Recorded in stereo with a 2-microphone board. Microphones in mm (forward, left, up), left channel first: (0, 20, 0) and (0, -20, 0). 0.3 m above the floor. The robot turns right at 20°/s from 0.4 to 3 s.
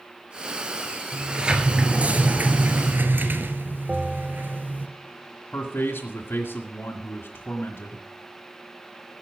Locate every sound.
1.1 s a sliding door: 165° right, 1.5 m; by 4.9 s 125° right, 1.5 m
3.9 s a bell: 25° right (ahead or behind), 0.8 m
5.5 s a man speaking: 60° left (ahead or behind), 1.8 m